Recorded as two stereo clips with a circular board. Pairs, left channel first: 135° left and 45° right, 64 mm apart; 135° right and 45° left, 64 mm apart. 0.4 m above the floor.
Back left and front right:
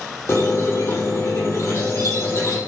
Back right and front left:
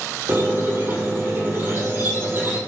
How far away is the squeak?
About 1.0 m.